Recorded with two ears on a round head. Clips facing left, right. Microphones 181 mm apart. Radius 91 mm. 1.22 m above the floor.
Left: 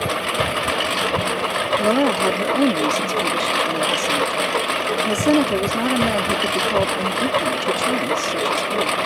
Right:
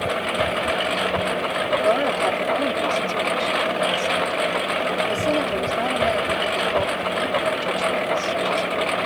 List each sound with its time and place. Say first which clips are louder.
0.0 s a lawn mower: even; 60° left (ahead or behind)
1.8 s a woman speaking: left 4 dB; 65° left (ahead or behind)